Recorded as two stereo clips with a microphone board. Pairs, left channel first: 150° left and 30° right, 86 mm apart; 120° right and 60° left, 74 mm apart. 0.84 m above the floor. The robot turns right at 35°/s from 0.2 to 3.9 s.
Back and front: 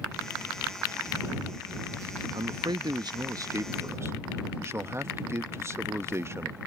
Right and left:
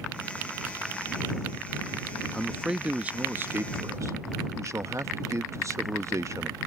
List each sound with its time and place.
2.3 s a man speaking: 35° right; by 6.6 s 20° left